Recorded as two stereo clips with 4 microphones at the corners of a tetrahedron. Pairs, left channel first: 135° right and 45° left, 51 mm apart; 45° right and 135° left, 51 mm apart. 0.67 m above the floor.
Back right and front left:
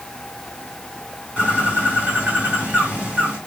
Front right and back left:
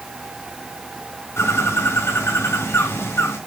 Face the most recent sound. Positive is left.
turn(degrees=-20)